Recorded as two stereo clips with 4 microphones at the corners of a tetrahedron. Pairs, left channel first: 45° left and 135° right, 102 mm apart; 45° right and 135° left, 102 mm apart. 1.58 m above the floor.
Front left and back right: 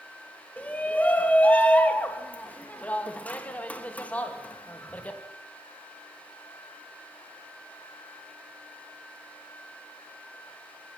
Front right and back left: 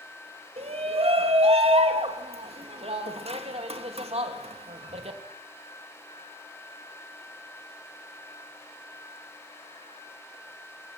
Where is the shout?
120° left, 3 m.